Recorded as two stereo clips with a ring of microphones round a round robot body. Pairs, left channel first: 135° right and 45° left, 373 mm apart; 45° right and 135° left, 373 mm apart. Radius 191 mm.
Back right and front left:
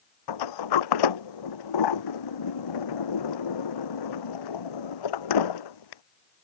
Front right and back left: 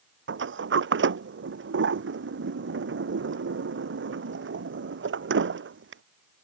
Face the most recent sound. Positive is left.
turn(degrees=-165)